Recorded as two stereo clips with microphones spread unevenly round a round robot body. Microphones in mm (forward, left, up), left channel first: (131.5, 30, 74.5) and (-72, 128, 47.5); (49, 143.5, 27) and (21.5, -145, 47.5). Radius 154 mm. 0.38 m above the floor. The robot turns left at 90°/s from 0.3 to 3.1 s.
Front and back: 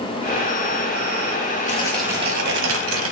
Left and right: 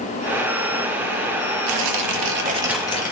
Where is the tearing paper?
90° right, 1.5 m; by 3.1 s 145° left, 1.5 m.